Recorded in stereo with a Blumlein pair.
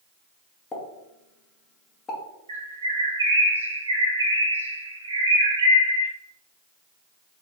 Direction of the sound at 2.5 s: 70° right.